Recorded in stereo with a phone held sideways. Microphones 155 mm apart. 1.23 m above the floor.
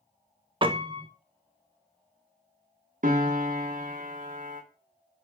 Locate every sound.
0.6 s a piano: 35° right (ahead or behind), 0.5 m
3.0 s a piano: 60° right (ahead or behind), 0.8 m